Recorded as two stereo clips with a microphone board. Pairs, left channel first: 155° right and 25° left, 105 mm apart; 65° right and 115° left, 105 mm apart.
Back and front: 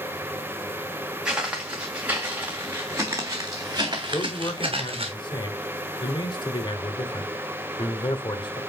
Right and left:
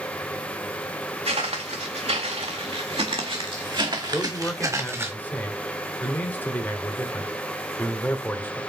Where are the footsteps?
105° left, 2.5 m; by 5.1 s 45° left, 1.5 m.